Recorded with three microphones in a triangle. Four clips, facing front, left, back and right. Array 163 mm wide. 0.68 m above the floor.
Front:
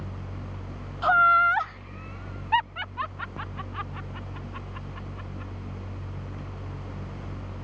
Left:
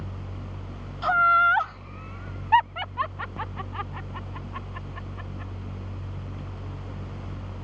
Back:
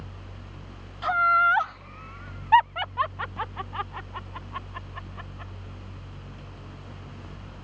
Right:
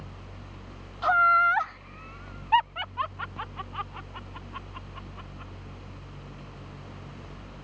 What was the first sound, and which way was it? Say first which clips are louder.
Laughter: left 1 dB, front 2 dB; 10° right.